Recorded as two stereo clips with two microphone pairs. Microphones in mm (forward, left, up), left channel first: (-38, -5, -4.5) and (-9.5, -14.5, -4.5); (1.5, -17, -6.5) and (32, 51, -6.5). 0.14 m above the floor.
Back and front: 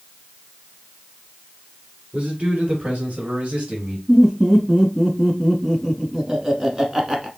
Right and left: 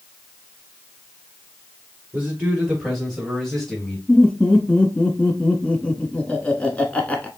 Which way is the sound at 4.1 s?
60° right.